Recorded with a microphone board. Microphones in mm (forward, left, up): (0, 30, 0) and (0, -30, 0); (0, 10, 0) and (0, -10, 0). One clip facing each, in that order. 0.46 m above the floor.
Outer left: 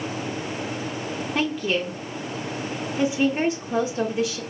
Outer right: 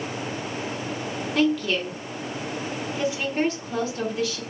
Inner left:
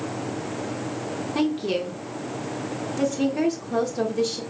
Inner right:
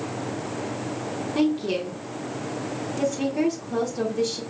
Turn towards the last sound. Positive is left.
turn(degrees=20)  # may be behind; listen again after turning